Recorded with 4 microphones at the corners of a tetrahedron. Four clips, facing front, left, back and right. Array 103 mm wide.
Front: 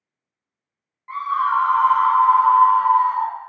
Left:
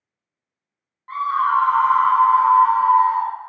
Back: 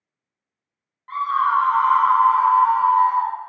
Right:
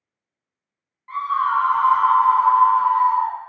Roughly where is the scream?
Behind left.